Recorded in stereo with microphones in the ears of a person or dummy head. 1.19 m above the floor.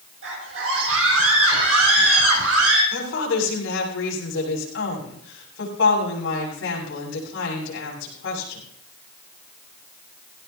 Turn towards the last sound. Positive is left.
turn(degrees=70)  # may be behind; listen again after turning